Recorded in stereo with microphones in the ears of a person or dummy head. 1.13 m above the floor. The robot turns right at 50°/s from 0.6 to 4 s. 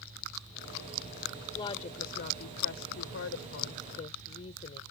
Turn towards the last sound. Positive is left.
turn(degrees=145)